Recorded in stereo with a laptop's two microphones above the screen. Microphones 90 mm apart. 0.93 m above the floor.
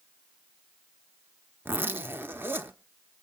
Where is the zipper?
25° right (ahead or behind), 0.7 m.